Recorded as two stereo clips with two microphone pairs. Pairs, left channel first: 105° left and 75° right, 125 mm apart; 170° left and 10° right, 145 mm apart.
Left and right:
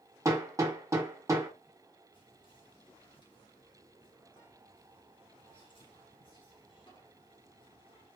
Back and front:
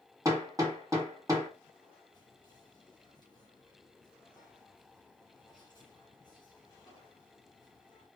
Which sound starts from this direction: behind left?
Whispering, at 2.1 s.